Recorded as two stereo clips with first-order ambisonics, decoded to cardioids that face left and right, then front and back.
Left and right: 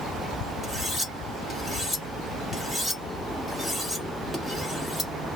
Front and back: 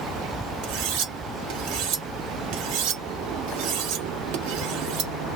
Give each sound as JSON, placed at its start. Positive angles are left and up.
{"t": 0.6, "sound": "cutlery clinking", "azimuth_deg": 170, "distance_m": 1.4}